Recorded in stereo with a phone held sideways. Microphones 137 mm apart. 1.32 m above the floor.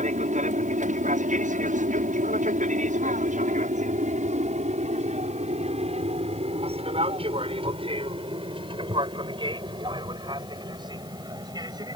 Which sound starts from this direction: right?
An aircraft, at 0.0 s.